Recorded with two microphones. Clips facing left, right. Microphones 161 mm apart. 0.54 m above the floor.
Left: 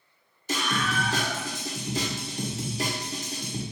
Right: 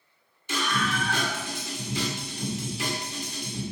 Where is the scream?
40° left (ahead or behind), 1.8 m.